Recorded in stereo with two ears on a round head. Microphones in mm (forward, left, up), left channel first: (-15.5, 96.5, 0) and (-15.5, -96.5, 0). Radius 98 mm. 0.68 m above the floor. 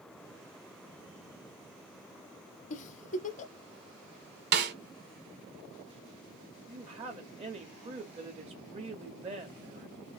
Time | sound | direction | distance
2.7 | a giggle | 35° left (ahead or behind) | 0.6 m
4.5 | a snare drum | 45° right (ahead or behind) | 1.3 m
6.7 | a woman speaking | 25° right (ahead or behind) | 1.1 m